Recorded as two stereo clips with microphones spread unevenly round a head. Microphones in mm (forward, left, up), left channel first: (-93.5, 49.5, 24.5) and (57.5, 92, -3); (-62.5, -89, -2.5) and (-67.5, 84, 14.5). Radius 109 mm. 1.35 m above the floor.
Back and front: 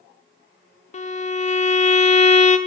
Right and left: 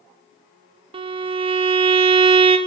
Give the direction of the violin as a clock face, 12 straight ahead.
7 o'clock.